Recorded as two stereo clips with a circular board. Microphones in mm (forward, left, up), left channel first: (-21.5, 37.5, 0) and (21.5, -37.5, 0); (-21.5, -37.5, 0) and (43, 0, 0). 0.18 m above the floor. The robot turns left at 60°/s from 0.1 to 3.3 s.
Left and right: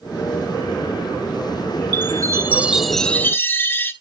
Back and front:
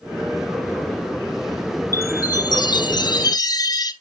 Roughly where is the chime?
Right.